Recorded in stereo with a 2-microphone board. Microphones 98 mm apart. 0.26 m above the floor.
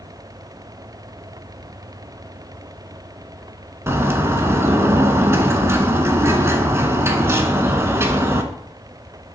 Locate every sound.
3.9 s a bird: 25° right (ahead or behind), 0.5 m